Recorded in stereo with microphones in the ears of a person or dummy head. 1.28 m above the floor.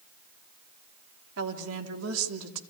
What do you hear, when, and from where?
1.4 s a woman speaking: 75° right (ahead or behind), 2.5 m; by 2.6 s 85° right, 2.5 m